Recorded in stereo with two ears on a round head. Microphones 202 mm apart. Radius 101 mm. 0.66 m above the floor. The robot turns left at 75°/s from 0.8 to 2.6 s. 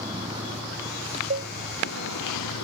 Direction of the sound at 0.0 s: 20° right (ahead or behind).